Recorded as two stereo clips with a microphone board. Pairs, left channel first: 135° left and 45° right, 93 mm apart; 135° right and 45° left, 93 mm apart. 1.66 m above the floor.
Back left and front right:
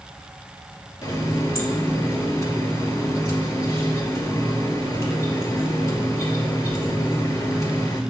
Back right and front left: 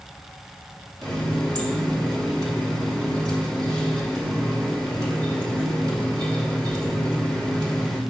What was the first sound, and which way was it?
A running tap, 85° left.